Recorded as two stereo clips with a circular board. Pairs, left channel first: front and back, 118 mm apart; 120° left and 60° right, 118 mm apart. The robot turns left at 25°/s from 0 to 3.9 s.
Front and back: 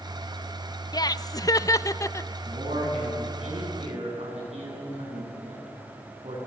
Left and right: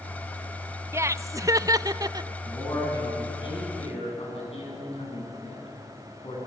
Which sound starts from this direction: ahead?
Laughter, at 0.9 s.